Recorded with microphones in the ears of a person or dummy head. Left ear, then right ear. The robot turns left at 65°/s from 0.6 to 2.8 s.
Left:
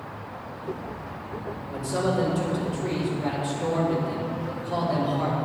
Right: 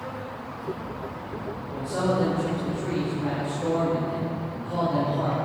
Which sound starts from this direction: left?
A man speaking, at 1.7 s.